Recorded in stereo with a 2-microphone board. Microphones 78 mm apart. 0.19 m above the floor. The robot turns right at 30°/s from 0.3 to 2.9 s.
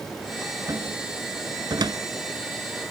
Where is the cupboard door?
50° right (ahead or behind), 1.2 m; by 2.0 s 65° right (ahead or behind), 1.2 m.